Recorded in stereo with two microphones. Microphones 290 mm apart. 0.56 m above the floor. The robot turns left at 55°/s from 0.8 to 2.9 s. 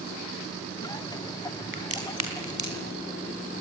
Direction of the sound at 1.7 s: 45° right (ahead or behind).